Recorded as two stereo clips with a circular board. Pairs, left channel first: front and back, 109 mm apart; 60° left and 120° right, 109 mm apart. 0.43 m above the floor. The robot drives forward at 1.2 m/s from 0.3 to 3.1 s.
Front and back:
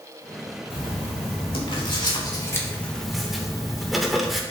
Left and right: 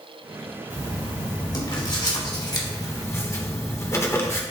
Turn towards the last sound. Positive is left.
turn(degrees=90)